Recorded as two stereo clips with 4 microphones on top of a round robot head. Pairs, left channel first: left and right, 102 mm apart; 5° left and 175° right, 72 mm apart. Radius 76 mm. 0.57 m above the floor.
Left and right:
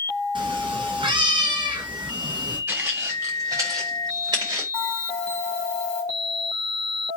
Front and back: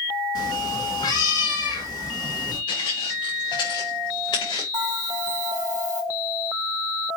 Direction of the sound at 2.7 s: 20° right.